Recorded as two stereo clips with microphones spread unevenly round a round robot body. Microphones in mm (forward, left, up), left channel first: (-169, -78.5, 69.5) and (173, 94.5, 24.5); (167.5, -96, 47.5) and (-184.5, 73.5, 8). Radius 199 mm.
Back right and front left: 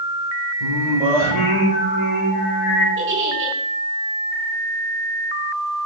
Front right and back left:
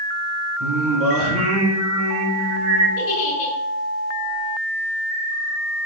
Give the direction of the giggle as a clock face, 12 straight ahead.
1 o'clock.